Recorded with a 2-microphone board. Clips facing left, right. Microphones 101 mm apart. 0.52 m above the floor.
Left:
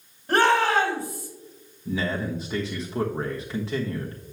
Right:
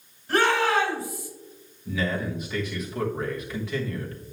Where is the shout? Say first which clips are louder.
Left 2 dB; 55° left (ahead or behind), 3.5 m.